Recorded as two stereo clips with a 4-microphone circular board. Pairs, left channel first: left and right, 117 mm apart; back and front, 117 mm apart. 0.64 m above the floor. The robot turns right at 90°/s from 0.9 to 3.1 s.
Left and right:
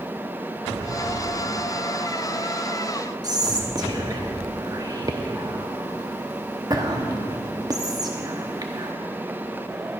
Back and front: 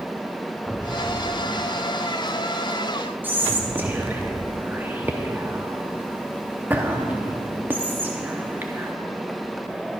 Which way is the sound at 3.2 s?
65° right.